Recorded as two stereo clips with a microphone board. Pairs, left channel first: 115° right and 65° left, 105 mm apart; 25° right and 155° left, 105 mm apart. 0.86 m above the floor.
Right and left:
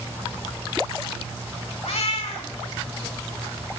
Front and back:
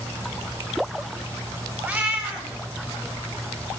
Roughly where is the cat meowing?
Behind right.